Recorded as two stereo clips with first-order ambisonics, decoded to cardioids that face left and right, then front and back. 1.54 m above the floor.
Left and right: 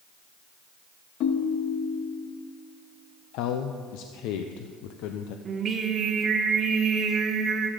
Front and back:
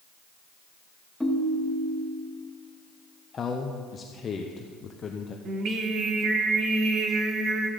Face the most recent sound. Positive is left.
turn(degrees=-145)